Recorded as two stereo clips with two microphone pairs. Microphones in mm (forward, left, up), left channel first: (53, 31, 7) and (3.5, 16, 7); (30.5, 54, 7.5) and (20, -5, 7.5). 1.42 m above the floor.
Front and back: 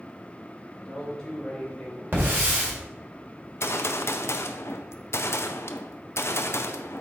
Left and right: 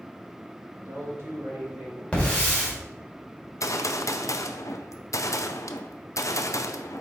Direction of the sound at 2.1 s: 150° left.